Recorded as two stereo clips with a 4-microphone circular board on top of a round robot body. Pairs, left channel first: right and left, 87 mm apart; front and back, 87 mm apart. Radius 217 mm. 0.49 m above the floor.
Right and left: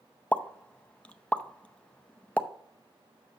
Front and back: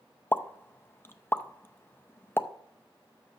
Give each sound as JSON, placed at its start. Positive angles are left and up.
{"t": 0.3, "sound": "a pop", "azimuth_deg": -30, "distance_m": 0.8}